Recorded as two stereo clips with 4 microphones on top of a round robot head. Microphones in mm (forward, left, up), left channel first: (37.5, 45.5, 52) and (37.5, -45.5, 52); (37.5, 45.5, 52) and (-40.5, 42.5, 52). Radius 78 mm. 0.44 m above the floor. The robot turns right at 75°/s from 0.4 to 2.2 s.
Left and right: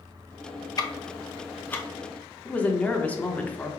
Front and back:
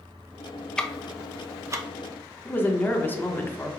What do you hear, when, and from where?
0.8 s ticking: 75° left, 0.8 m; by 1.9 s 160° left, 0.8 m
2.5 s a woman speaking: 35° left, 1.0 m